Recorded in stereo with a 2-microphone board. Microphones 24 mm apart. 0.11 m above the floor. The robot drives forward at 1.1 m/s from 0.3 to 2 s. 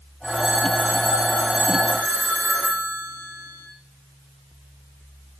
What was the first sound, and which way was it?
A phone ringing, 50° right (ahead or behind).